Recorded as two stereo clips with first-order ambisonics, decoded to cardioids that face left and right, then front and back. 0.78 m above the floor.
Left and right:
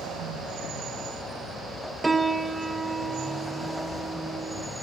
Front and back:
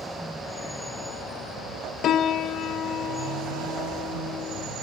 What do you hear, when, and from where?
2.0 s a piano: 20° right, 1.0 m